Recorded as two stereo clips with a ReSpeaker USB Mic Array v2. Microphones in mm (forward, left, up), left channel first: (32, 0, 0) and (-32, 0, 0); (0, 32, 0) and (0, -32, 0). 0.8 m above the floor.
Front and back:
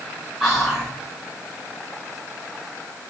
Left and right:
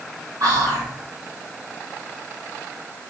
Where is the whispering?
85° right, 1.3 m.